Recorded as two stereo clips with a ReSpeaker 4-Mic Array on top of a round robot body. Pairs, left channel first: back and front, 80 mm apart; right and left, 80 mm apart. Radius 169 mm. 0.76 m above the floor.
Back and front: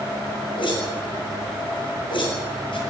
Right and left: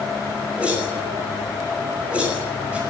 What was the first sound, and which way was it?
A whoosh, 165° left.